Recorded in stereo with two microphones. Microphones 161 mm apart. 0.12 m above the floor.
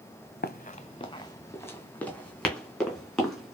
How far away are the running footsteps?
About 0.6 m.